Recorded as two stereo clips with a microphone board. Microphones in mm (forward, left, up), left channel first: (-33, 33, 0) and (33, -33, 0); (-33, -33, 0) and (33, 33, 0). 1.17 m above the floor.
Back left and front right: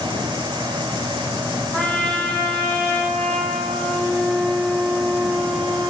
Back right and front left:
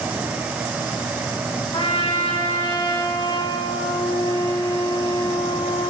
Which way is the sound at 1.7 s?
150° right.